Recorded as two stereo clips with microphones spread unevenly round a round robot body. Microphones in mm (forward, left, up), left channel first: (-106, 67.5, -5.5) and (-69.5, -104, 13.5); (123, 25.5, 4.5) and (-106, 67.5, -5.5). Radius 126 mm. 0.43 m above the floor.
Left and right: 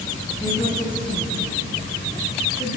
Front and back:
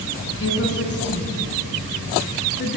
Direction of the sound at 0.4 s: 30° left.